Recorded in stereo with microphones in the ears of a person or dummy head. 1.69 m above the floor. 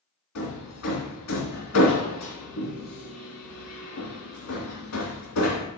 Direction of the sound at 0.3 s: 80° left.